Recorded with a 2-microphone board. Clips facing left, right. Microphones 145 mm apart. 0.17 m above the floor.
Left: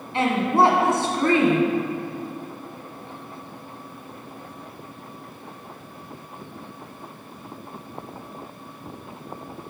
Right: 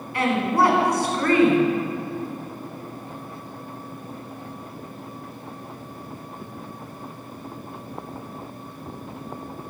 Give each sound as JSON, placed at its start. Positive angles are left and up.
{"t": 0.1, "sound": "a woman speaking", "side_deg": 25, "distance_m": 1.6}